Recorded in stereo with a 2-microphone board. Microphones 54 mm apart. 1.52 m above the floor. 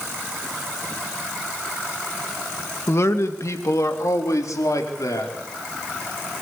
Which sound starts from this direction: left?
A man speaking, at 2.9 s.